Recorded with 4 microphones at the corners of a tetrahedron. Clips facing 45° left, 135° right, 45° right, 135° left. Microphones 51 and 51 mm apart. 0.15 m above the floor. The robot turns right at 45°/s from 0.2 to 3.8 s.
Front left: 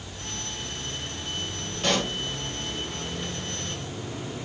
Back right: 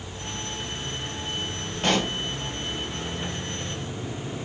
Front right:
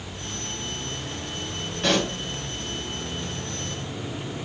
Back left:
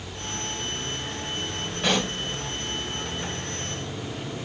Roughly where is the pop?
Behind.